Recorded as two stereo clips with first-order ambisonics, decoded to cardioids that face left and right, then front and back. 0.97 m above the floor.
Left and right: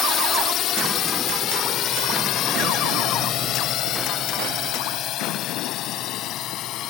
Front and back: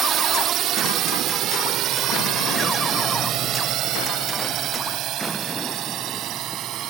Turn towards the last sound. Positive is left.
turn(degrees=135)